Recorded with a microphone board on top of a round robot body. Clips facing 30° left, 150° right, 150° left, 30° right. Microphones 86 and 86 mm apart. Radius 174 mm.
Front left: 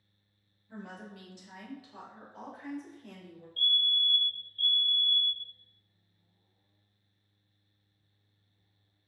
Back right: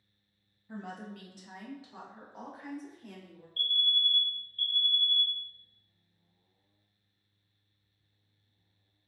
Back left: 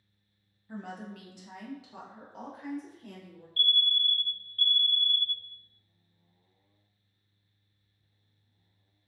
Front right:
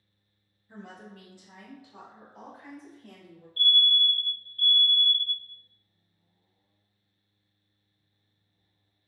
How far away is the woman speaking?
About 0.5 m.